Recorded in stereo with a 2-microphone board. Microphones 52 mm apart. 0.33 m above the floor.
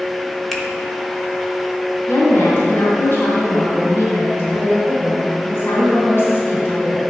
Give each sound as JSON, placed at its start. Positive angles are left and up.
{"t": 0.5, "sound": "a finger snap", "side_deg": 5, "distance_m": 0.9}
{"t": 2.1, "sound": "a woman speaking", "side_deg": 50, "distance_m": 2.0}